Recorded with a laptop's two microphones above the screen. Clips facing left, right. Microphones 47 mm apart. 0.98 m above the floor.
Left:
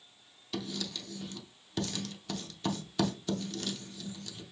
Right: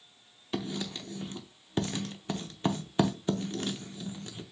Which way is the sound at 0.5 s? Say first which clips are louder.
Right 3 dB; 30° right (ahead or behind).